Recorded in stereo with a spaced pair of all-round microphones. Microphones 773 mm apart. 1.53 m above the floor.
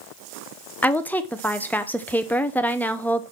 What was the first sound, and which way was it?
A woman speaking, centre (ahead or behind).